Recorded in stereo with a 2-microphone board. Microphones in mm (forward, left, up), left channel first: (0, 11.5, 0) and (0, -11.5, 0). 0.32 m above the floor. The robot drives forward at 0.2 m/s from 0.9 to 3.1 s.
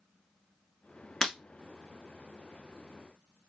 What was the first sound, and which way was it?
Breaking glass, 20° left (ahead or behind).